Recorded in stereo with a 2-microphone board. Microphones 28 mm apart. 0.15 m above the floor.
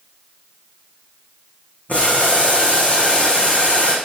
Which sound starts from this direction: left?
Boiling, at 1.9 s.